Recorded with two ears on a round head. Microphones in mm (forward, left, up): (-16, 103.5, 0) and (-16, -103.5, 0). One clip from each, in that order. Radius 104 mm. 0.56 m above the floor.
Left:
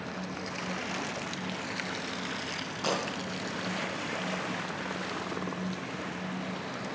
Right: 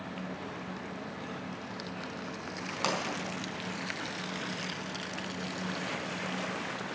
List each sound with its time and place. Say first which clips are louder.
2.8 s a pop: left 1 dB; 50° right (ahead or behind), 4.5 m